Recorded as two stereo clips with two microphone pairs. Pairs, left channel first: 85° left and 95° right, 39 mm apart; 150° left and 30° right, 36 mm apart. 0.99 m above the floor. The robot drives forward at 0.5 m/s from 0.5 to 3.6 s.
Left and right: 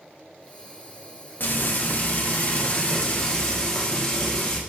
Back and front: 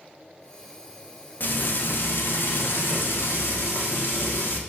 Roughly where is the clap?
I don't hear a clap.